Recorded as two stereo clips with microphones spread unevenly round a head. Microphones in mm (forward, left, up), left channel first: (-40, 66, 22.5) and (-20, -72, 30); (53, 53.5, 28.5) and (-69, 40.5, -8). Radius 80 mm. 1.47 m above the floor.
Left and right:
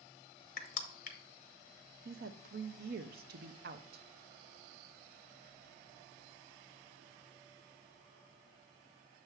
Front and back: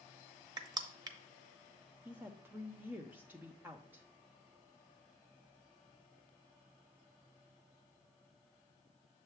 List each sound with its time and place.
0.6 s crushing: 125° left, 0.8 m
2.0 s a woman speaking: 90° right, 0.6 m